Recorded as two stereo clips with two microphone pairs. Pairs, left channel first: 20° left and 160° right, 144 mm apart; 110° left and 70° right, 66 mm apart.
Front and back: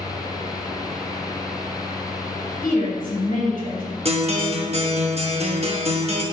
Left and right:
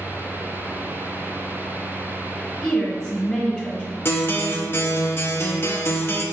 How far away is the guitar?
About 0.6 m.